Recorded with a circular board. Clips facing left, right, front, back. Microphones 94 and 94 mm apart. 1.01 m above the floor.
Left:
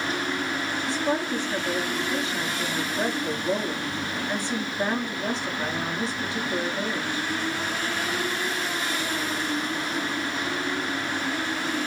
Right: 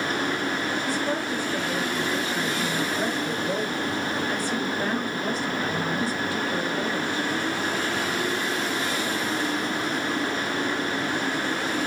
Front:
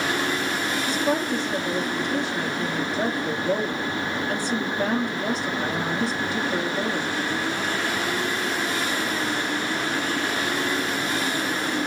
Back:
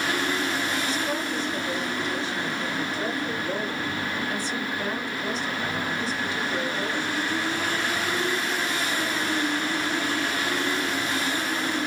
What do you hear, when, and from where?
0.9 s a woman speaking: 25° left, 2.5 m